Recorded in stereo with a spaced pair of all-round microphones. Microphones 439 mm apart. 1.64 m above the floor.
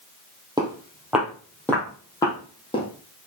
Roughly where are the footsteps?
Centre.